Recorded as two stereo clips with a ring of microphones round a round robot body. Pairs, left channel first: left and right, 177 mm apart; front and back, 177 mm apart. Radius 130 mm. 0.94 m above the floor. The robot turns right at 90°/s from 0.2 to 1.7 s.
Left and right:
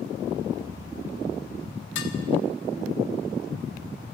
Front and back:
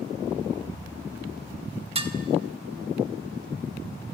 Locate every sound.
1.9 s dishes clattering: 120° left, 1.7 m